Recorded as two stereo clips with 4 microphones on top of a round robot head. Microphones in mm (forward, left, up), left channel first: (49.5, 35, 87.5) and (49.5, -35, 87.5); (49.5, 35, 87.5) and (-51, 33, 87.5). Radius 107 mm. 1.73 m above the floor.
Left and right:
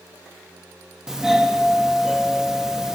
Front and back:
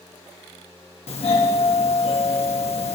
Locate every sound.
1.1 s a doorbell: 10° right, 1.4 m